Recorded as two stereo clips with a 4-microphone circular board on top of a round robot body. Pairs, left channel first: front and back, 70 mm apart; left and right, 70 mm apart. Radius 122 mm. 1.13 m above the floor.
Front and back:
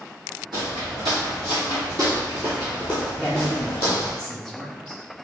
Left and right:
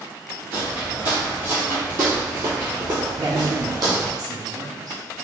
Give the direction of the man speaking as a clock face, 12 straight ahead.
3 o'clock.